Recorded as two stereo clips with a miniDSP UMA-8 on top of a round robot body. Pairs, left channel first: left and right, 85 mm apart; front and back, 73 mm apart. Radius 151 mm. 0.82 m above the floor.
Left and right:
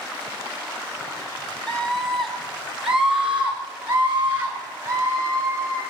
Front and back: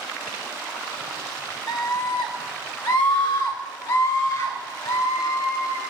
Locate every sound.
1.7 s a scream: 15° left, 2 m; by 5.8 s 30° right, 5.5 m